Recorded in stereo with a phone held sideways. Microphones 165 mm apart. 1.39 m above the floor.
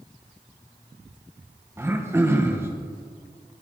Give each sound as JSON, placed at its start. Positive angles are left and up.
{"t": 1.8, "sound": "throat clearing", "side_deg": -15, "distance_m": 1.3}